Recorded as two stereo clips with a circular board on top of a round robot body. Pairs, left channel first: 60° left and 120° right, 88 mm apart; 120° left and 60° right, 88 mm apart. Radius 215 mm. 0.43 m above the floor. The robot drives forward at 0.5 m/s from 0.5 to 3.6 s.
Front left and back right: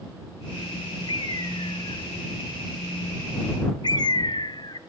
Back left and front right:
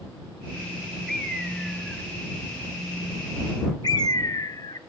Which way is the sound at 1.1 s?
30° left.